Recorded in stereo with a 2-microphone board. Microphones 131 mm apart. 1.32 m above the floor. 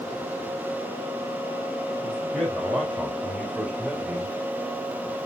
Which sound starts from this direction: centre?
A man speaking, at 2.0 s.